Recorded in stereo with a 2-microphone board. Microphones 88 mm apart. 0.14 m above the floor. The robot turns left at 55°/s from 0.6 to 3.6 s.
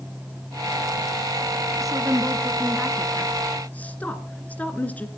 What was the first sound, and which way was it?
A woman speaking, 40° right (ahead or behind).